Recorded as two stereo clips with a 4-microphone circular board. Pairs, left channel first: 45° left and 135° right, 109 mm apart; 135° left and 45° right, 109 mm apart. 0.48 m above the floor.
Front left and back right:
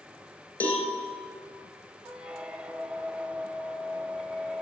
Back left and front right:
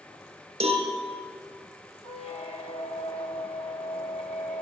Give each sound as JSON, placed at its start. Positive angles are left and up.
{"t": 0.6, "sound": "a cowbell", "azimuth_deg": -30, "distance_m": 2.5}
{"t": 2.0, "sound": "a squeak", "azimuth_deg": 145, "distance_m": 0.7}